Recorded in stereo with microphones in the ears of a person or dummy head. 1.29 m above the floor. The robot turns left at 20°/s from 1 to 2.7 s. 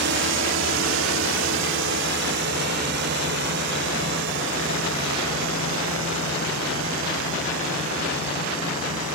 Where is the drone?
60° right (ahead or behind); by 9.2 s 75° right (ahead or behind).